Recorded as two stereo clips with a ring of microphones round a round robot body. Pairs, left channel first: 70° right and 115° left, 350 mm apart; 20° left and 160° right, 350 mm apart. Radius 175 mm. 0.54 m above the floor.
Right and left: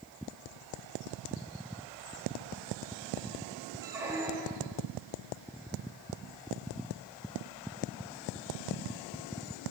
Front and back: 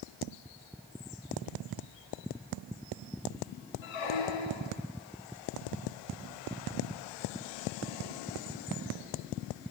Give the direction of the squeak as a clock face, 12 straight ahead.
11 o'clock.